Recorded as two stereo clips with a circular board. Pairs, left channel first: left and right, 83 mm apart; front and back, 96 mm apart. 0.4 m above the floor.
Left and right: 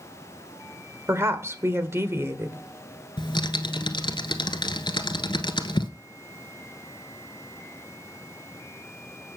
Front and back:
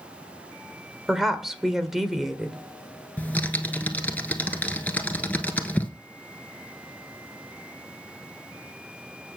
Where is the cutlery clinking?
No cutlery clinking in this recording.